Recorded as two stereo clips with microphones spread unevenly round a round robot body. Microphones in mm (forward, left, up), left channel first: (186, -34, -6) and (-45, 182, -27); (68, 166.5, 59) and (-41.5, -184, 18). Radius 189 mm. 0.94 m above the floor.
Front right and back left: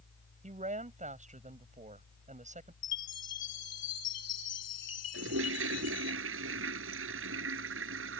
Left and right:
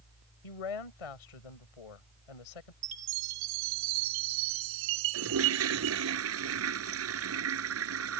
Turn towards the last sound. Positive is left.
turn(degrees=-165)